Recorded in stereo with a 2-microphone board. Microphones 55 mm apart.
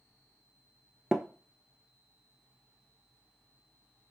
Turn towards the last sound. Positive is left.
turn(degrees=-15)  # may be behind; listen again after turning